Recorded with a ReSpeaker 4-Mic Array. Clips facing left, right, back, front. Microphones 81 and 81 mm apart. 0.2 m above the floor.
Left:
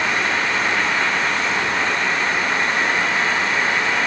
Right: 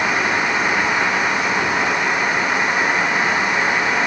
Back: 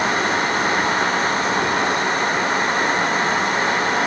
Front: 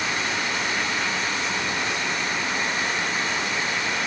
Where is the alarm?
I don't hear an alarm.